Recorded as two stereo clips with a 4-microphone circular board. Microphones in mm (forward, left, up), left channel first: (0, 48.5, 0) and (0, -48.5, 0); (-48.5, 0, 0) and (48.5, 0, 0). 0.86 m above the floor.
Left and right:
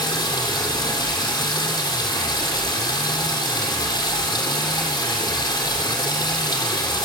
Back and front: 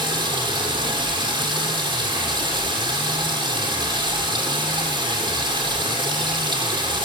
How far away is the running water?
About 7 m.